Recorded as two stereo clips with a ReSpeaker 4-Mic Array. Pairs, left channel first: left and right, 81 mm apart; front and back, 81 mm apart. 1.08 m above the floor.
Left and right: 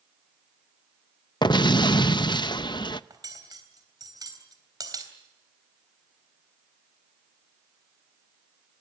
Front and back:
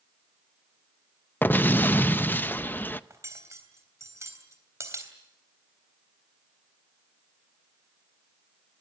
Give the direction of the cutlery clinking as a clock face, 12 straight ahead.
4 o'clock.